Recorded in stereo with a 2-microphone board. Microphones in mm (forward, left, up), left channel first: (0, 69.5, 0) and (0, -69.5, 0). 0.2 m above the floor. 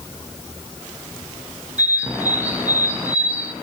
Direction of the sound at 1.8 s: 10° right (ahead or behind).